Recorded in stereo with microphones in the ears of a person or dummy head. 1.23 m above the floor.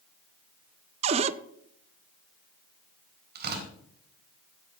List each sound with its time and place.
1.0 s a cupboard door: 30° right (ahead or behind), 0.5 m
3.4 s tearing paper: 60° right (ahead or behind), 3.5 m